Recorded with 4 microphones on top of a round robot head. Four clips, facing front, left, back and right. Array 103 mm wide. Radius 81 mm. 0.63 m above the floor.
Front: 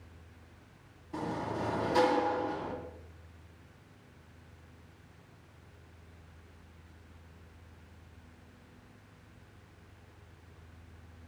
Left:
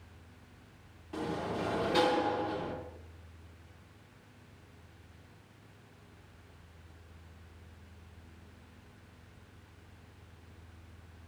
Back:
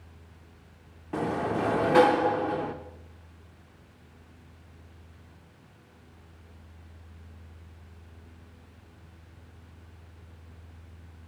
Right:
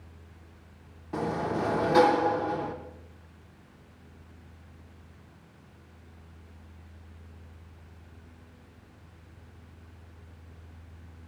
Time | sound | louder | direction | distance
1.1 | a sliding door | right 6 dB, back 7 dB | 150° right | 0.5 m